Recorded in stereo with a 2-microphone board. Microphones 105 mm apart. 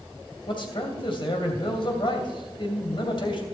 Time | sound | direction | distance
0.5 | a man speaking | 55° left (ahead or behind) | 2.5 m